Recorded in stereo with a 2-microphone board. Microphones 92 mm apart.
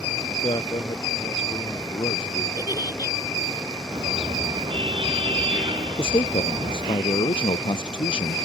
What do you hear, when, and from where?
0.3 s a man speaking: 55° left (ahead or behind)
2.6 s a giggle: 50° left (ahead or behind)
3.9 s a car horn: 60° right (ahead or behind)
6.0 s a man speaking: 65° left (ahead or behind)